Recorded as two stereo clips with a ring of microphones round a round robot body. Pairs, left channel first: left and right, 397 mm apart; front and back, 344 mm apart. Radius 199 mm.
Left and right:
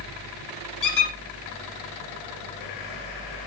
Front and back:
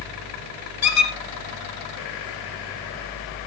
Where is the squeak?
45° left, 2.5 m.